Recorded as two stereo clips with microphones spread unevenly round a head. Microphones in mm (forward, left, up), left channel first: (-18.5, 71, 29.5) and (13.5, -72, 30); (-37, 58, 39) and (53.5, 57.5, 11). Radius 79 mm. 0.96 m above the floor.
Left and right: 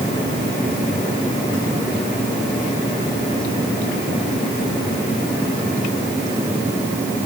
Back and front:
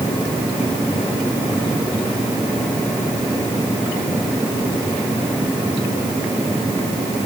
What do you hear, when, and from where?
Only background noise.